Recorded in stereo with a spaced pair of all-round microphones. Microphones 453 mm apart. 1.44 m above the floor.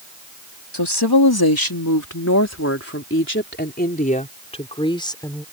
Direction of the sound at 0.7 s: 60° left (ahead or behind).